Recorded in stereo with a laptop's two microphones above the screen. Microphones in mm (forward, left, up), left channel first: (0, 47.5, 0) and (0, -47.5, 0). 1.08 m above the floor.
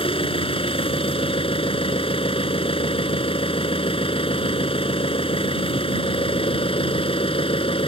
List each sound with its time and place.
0.0 s an engine running: 75° left (ahead or behind)